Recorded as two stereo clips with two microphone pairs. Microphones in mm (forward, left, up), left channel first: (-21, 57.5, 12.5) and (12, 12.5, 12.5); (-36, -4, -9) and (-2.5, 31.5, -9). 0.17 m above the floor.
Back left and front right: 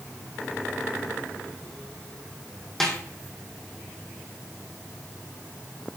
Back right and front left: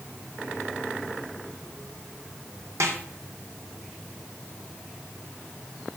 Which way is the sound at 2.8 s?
40° left.